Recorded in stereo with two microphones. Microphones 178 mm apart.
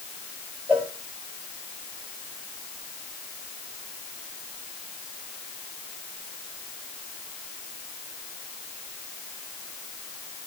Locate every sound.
0.7 s a cowbell: 10° right (ahead or behind), 6 m